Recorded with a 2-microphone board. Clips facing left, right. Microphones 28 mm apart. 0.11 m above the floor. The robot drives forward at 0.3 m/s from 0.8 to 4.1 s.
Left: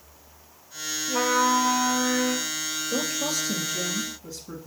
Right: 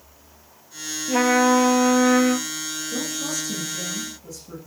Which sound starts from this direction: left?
A woman speaking, at 2.9 s.